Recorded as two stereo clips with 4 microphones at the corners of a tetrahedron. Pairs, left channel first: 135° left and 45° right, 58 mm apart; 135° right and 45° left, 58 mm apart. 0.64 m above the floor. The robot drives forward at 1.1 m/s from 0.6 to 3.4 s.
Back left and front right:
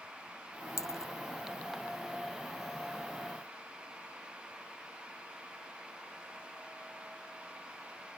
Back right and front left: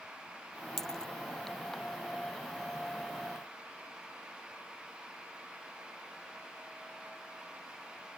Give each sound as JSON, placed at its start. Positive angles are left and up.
{"t": 0.8, "sound": "a dropped coin", "azimuth_deg": 140}